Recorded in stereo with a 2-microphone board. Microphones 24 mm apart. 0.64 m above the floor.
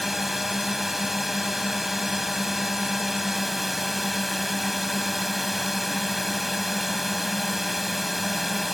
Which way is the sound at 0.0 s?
5° right (ahead or behind).